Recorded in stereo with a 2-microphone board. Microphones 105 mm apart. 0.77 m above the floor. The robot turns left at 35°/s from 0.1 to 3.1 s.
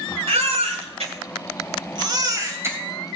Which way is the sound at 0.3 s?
70° right (ahead or behind).